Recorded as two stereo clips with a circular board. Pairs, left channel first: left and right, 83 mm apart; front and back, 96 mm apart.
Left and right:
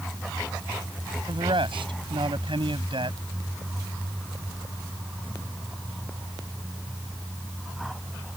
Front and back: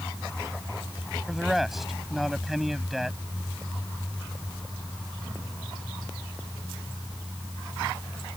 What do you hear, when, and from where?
1.3 s a man speaking: 90° right